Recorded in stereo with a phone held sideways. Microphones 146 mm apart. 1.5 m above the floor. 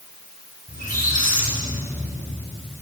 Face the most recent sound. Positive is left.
turn(degrees=75)  # may be behind; listen again after turning